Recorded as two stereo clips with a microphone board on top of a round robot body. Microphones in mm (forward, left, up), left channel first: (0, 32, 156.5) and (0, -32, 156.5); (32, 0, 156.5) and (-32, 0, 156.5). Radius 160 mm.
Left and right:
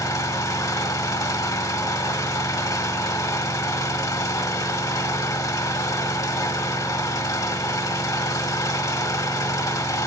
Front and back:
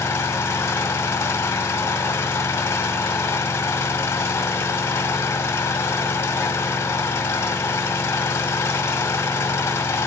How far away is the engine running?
About 1.2 m.